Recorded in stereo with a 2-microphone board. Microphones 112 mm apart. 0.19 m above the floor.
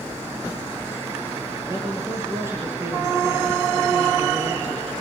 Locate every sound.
1.7 s a man speaking: 25° right (ahead or behind), 4.5 m